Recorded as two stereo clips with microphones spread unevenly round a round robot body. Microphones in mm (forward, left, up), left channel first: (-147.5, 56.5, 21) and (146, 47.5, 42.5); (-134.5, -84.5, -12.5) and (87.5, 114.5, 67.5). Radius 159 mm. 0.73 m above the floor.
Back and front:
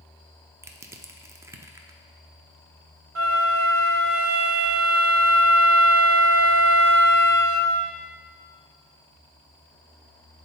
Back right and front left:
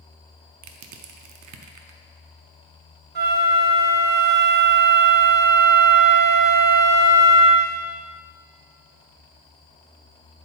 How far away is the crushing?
About 0.7 m.